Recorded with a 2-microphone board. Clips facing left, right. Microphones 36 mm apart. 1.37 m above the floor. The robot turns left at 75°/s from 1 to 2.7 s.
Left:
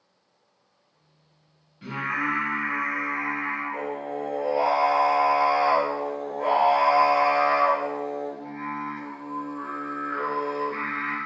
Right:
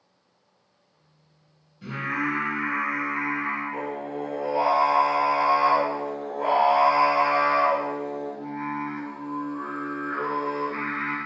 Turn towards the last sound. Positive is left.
turn(degrees=-10)